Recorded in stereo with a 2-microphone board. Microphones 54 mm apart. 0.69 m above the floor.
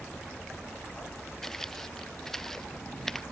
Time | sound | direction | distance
1.4 | footsteps | 10° left (ahead or behind) | ?